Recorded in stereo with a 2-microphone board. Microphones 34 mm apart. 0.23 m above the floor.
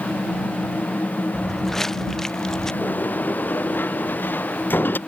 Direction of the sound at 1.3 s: 5° left (ahead or behind).